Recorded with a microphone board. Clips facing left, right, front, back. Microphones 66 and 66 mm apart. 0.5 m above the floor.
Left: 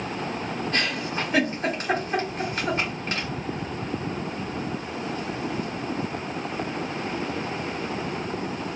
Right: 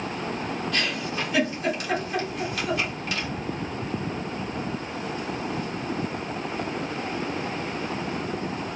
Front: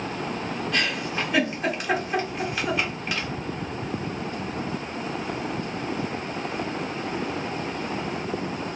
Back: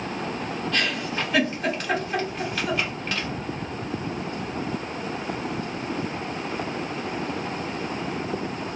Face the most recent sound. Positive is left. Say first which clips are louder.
# left 3 dB, even
turn(degrees=75)